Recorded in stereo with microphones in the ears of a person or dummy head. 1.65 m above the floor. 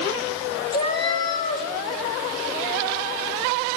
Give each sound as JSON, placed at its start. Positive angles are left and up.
{"t": 0.7, "sound": "a cat meowing", "side_deg": 25, "distance_m": 3.5}